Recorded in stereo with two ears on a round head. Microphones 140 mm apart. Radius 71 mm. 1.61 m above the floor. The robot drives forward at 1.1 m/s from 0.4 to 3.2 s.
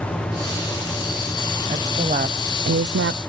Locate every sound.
1.7 s a woman speaking: 20° right (ahead or behind), 1.6 m; by 3.2 s 70° right (ahead or behind), 0.6 m